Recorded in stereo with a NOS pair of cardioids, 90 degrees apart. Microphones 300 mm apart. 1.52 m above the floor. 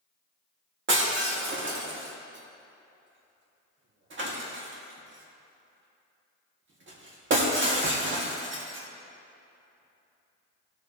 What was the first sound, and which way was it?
Breaking glass, 40° right.